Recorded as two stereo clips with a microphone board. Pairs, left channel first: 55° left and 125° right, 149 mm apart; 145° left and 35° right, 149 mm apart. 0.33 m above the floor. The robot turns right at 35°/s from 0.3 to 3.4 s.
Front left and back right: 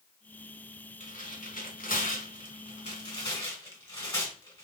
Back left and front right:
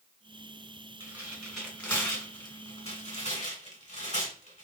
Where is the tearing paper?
35° left, 1.7 m; by 4.7 s 120° left, 1.7 m.